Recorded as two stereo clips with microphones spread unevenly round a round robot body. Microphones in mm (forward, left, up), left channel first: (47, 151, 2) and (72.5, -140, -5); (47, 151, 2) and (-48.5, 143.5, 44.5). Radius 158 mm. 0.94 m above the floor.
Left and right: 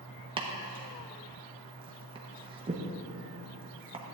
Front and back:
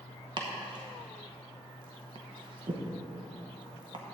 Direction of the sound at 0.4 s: 135° right.